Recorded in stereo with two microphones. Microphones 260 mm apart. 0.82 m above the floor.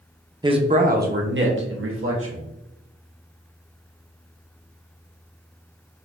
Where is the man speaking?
15° right (ahead or behind), 0.6 m; by 2.4 s 60° right (ahead or behind), 1.4 m.